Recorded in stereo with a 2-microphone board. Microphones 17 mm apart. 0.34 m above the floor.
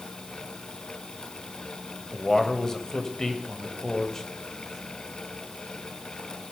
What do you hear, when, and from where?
2.1 s a man speaking: 25° left (ahead or behind), 1.7 m